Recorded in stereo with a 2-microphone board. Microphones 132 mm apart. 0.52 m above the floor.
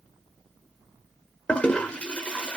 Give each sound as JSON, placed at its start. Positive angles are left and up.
{"t": 1.5, "sound": "a toilet flushing", "side_deg": 10, "distance_m": 0.8}